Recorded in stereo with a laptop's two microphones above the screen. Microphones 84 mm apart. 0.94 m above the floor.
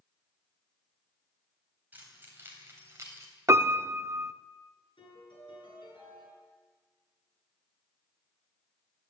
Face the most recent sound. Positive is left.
turn(degrees=85)